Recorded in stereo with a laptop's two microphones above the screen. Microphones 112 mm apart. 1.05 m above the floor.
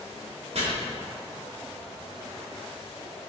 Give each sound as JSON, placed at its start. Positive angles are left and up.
{"t": 0.6, "sound": "chopping", "side_deg": -65, "distance_m": 2.5}